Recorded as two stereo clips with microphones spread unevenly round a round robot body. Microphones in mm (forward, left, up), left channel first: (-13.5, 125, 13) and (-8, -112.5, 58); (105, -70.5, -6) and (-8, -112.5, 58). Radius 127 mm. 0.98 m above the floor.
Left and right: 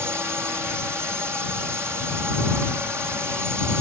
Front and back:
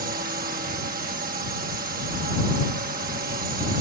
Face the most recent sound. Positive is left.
turn(degrees=-175)